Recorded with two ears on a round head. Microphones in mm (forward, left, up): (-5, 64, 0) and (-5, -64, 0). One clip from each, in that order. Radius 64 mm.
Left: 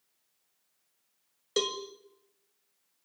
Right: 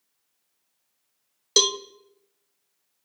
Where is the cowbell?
75° right (ahead or behind), 1.2 m.